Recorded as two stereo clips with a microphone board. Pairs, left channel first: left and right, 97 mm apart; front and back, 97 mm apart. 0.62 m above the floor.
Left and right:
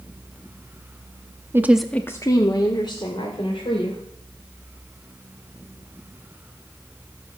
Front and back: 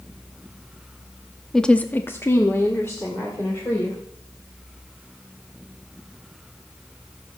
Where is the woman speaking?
75° right, 0.7 m; by 4.0 s 65° left, 3 m.